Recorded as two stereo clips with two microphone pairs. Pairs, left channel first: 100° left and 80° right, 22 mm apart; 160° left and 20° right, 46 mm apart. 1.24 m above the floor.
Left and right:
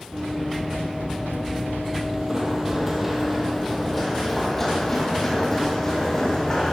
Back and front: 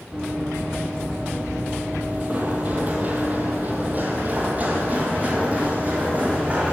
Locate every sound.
0.1 s running footsteps: 90° right, 1.7 m; by 6.7 s 35° left, 3 m